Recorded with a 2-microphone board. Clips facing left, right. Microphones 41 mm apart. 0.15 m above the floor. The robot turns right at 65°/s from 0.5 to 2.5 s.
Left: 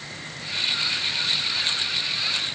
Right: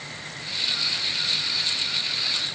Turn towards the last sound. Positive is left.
No sound to turn to.